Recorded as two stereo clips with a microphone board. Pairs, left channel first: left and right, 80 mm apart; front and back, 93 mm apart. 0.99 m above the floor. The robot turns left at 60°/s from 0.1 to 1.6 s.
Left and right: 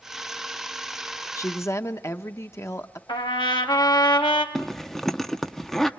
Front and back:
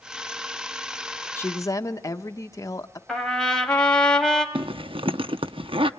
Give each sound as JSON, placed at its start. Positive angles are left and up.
{"t": 1.4, "sound": "a woman speaking", "azimuth_deg": 60, "distance_m": 1.0}
{"t": 3.1, "sound": "a trumpet", "azimuth_deg": 80, "distance_m": 2.0}
{"t": 4.5, "sound": "a zipper", "azimuth_deg": 175, "distance_m": 0.7}